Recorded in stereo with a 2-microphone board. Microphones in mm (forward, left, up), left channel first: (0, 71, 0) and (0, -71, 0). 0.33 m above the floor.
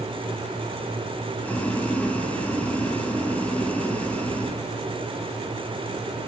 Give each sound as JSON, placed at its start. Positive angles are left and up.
{"t": 1.4, "sound": "boiling", "side_deg": 10, "distance_m": 4.5}